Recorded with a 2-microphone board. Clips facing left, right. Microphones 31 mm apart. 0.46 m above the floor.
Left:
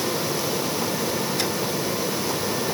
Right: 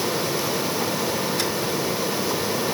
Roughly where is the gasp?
I don't hear a gasp.